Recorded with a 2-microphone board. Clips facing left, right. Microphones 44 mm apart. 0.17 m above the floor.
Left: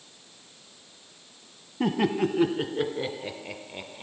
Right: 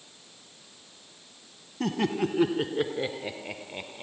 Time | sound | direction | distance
1.8 | laughter | 15° left (ahead or behind) | 1.0 m